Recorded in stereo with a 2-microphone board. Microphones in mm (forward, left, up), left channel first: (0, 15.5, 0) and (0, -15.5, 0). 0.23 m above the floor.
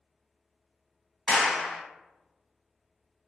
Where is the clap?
10° left (ahead or behind), 1.5 m.